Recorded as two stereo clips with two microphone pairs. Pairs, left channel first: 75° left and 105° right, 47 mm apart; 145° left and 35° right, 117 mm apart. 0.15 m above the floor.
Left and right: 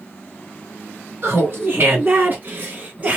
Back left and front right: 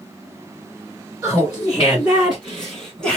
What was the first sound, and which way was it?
Laughter, 105° right.